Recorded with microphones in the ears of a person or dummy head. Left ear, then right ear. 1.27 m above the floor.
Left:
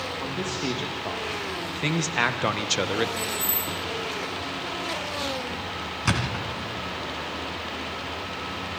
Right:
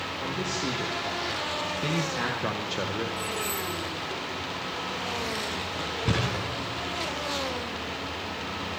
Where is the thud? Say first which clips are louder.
Left 4 dB; 55° left (ahead or behind), 3.5 m.